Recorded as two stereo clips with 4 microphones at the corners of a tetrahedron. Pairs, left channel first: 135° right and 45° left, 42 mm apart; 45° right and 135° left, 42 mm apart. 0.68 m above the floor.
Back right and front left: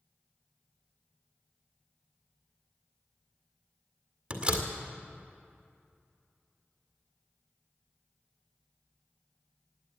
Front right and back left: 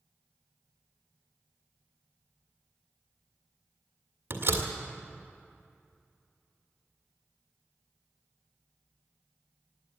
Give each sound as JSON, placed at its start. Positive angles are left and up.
{"t": 4.3, "sound": "a door slam", "azimuth_deg": 110, "distance_m": 1.8}